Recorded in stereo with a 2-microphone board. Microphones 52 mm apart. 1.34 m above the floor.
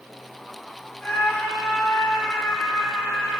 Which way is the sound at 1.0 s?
20° left (ahead or behind).